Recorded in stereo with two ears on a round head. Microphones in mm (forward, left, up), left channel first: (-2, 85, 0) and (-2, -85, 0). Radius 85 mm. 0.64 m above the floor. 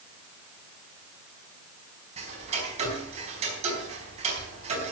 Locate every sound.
2.2 s ticking: 35° right (ahead or behind), 4.5 m